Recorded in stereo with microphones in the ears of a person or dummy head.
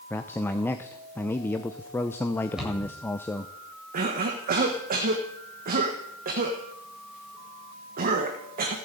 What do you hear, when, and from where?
0.1 s a man speaking: 10° left (ahead or behind), 0.7 m
2.6 s a cupboard door: 5° right (ahead or behind), 8 m
3.9 s a cough: 45° right (ahead or behind), 1.6 m